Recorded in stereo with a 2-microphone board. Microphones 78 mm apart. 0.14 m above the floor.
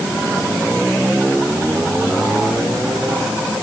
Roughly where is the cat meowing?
I don't hear a cat meowing.